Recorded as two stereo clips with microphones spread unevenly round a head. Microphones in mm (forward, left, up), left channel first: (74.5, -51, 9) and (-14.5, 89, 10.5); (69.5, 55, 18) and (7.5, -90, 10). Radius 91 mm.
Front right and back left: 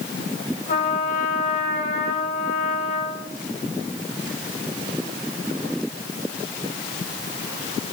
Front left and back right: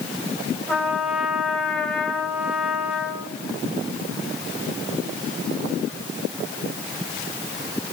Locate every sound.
0.7 s a trumpet: 20° right, 3 m